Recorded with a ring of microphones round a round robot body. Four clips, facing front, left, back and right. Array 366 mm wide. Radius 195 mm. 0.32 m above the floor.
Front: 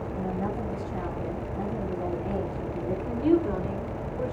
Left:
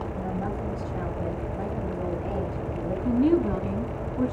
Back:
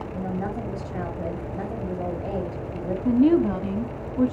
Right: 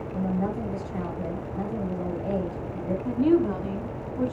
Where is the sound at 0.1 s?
Straight behind, 6 m.